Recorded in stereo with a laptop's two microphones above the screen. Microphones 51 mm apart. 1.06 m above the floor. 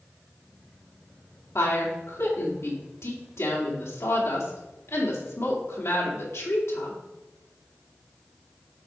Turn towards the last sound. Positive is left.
turn(degrees=70)  # may be behind; listen again after turning